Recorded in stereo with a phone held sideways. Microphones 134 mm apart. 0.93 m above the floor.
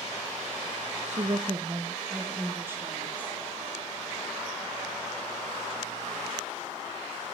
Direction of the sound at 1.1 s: 60° right (ahead or behind).